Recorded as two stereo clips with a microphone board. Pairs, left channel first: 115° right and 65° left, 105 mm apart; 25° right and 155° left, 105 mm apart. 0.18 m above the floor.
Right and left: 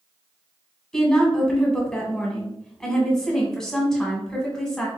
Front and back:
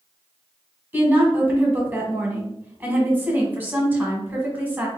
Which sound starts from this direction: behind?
A woman speaking, at 0.9 s.